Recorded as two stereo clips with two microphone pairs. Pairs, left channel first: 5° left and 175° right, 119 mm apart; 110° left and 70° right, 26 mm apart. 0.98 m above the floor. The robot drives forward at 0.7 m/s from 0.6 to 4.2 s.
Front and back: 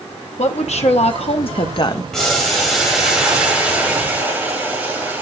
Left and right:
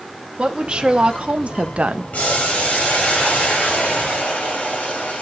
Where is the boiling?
90° left, 4 m; by 5.2 s 110° left, 4.5 m.